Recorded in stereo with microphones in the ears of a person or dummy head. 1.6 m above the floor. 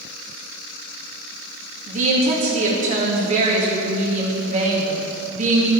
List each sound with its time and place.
1.9 s a woman speaking: 40° right (ahead or behind), 2 m